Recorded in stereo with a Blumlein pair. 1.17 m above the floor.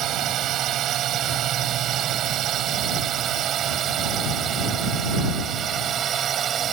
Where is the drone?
30° right; by 6.7 s 25° right.